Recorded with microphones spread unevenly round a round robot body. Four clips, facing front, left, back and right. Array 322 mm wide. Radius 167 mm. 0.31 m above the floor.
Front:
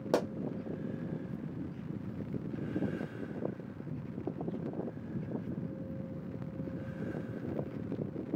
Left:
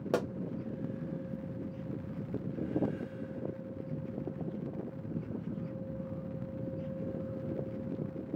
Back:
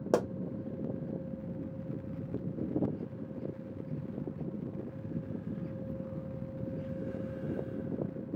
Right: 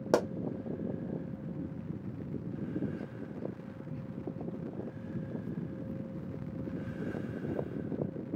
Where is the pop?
150° right, 0.9 m.